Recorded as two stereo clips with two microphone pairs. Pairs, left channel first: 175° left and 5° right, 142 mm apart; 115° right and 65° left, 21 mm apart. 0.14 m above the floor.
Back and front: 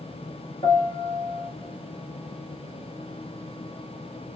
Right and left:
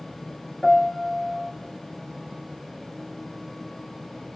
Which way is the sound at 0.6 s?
150° right.